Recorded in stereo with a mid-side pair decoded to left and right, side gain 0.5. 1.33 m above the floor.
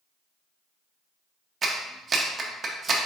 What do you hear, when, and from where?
1.6 s a clap: 35° right, 1.0 m